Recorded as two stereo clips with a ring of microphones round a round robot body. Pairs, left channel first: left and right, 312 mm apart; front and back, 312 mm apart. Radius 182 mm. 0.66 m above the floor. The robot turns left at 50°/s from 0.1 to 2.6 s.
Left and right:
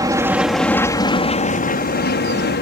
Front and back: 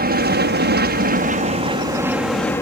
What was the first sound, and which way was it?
An aircraft, 160° right.